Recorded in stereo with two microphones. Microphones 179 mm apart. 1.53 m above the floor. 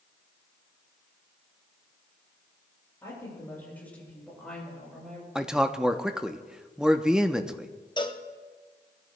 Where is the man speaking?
5° right (ahead or behind), 0.7 m.